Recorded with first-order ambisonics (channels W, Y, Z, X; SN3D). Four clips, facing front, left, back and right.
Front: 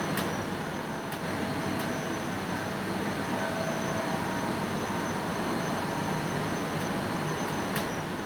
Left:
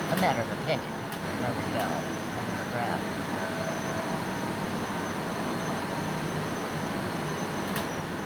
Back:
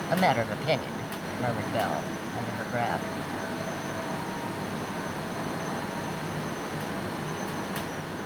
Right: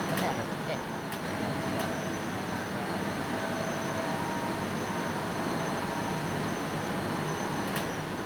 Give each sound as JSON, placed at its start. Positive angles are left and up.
{"t": 0.1, "sound": "a woman speaking", "azimuth_deg": 155}